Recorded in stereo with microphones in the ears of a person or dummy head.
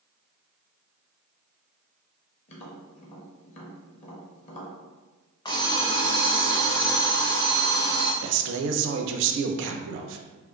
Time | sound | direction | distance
2.5 | tapping | 40° left (ahead or behind) | 1.1 m
5.5 | an alarm clock | 25° left (ahead or behind) | 0.5 m
8.2 | a man speaking | 65° right (ahead or behind) | 0.6 m